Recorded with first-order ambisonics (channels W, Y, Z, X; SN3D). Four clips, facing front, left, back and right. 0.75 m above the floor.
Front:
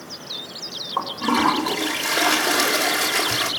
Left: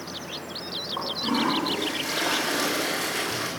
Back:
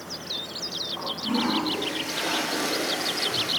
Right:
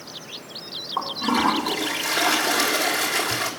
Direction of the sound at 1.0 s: 25° right.